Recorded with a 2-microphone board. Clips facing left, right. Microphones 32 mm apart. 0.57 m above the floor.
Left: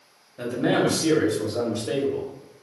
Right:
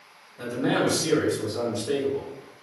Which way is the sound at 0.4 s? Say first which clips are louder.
Left 2 dB; 40° left (ahead or behind).